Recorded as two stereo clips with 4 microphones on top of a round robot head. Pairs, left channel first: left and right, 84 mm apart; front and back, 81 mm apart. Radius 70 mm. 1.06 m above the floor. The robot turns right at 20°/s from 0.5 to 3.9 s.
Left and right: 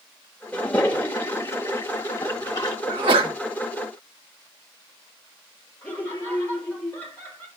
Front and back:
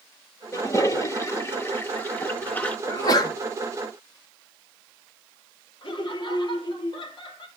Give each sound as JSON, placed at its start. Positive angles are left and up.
{"t": 0.5, "sound": "a toilet flushing", "azimuth_deg": 15, "distance_m": 0.8}
{"t": 2.9, "sound": "a sneeze", "azimuth_deg": -65, "distance_m": 1.5}
{"t": 5.8, "sound": "laughter", "azimuth_deg": 20, "distance_m": 3.0}